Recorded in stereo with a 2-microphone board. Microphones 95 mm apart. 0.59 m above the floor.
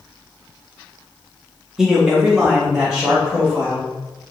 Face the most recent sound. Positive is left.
turn(degrees=-5)  # may be behind; listen again after turning